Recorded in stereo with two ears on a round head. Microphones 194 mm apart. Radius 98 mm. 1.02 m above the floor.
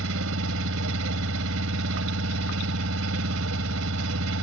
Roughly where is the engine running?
Right.